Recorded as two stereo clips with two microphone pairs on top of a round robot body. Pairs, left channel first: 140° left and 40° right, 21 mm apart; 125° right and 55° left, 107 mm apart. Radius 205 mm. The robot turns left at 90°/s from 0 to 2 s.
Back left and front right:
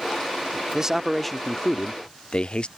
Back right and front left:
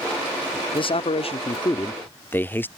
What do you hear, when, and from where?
0.7 s a man speaking: 90° right; by 2.7 s 155° left